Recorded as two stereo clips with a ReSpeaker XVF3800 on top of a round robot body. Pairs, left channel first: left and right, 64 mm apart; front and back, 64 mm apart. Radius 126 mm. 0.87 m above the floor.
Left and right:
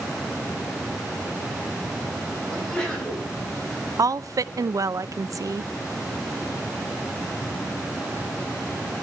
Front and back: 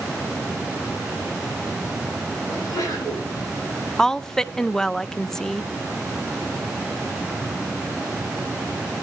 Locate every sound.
2.5 s a sneeze: 15° left, 8 m
4.0 s a woman speaking: 80° right, 0.6 m